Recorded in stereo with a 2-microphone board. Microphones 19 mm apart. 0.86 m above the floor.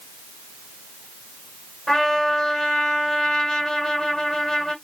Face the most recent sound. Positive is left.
turn(degrees=30)  # may be behind; listen again after turning